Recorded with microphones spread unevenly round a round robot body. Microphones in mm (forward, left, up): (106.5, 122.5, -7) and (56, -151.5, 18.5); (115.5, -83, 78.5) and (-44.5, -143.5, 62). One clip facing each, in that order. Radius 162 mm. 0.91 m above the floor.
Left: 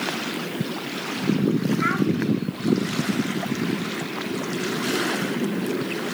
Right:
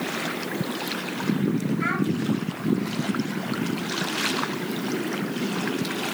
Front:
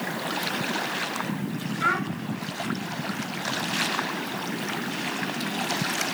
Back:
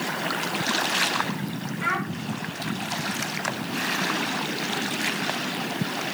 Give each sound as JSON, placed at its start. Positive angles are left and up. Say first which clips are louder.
{"t": 1.8, "sound": "a child speaking", "louder": "left 3 dB, front 1 dB", "azimuth_deg": 5, "distance_m": 4.0}